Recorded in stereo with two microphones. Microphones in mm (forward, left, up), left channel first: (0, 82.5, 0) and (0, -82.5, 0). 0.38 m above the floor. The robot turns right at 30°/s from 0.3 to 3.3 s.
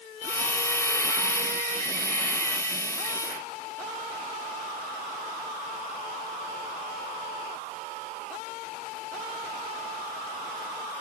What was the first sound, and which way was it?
Only background noise.